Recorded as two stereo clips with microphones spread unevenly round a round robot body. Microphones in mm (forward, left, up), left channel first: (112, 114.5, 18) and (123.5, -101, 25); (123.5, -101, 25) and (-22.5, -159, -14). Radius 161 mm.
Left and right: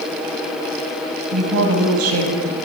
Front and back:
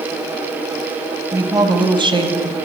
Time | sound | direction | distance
1.3 | a woman speaking | 90° right | 4.5 m